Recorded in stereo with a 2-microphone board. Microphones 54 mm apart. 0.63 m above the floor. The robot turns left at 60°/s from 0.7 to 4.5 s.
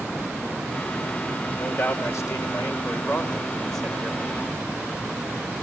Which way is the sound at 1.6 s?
140° left.